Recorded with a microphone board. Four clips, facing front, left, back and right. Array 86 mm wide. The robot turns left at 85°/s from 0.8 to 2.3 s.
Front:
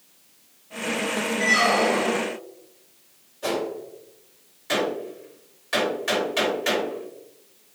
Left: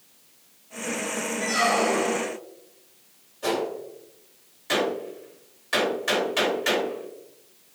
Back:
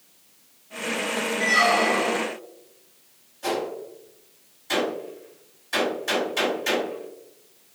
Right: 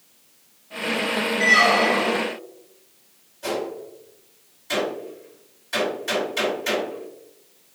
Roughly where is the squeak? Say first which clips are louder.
Right 5 dB, even; ahead right.